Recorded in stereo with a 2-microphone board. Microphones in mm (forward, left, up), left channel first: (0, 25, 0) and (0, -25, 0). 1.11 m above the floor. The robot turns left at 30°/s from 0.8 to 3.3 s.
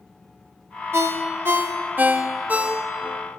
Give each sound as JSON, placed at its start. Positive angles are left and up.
{"t": 0.9, "sound": "a ringtone", "side_deg": -65, "distance_m": 0.8}